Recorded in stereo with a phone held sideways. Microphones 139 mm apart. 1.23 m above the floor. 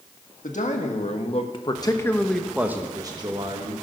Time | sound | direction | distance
0.4 | a man speaking | 65° left (ahead or behind) | 1.6 m